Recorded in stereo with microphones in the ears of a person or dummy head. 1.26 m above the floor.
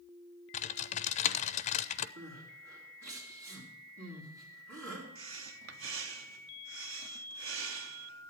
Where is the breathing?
70° right (ahead or behind), 0.8 m.